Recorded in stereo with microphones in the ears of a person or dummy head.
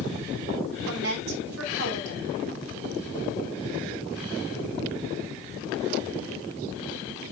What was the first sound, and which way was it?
A woman speaking, 60° right (ahead or behind).